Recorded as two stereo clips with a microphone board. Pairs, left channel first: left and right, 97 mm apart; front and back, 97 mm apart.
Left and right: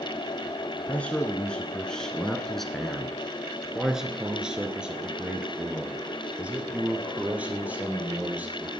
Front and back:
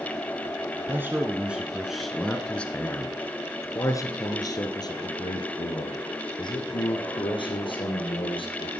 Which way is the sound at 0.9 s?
145° left.